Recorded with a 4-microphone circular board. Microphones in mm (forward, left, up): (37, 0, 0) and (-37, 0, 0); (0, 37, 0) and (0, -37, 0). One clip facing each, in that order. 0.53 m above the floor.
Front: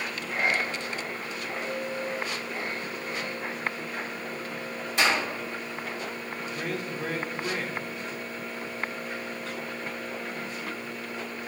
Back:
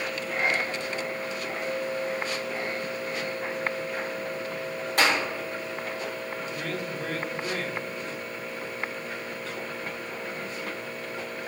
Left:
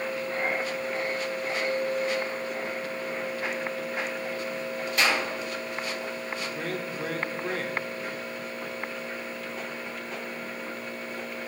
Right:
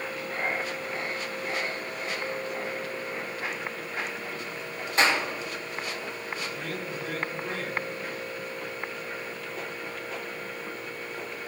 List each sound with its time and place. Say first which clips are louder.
5.0 s a clap: back 1 dB, right 2 dB; 150° right, 4 m
6.5 s a man speaking: front 3 dB, left 2 dB; 75° left, 1.2 m